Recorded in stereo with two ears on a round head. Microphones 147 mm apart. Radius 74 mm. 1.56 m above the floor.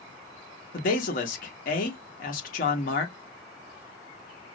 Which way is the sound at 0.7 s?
50° left (ahead or behind).